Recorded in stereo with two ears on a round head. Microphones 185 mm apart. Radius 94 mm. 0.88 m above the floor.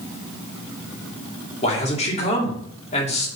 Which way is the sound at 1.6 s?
35° left (ahead or behind).